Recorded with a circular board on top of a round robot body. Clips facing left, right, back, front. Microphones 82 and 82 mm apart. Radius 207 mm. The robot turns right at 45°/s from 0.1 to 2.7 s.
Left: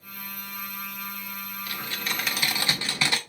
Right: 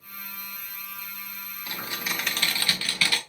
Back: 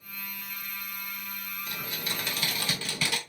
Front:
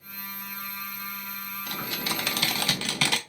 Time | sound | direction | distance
1.7 | typing on a keyboard | 25° right | 0.5 m